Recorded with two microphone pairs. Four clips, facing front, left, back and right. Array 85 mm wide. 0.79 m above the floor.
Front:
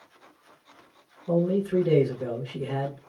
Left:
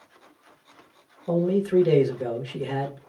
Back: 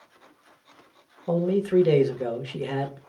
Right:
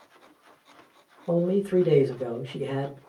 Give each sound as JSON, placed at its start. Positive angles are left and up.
{"t": 1.3, "sound": "a man speaking", "azimuth_deg": 170, "distance_m": 1.2}